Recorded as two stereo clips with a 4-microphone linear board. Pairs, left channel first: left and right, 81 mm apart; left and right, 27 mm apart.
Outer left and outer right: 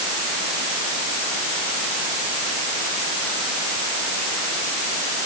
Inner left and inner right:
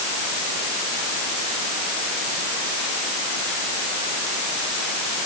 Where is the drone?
No drone in this recording.